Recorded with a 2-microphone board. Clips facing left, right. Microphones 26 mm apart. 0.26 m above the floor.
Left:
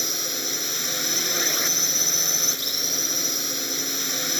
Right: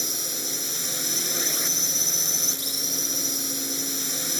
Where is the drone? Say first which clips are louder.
Left 3 dB; 20° left (ahead or behind).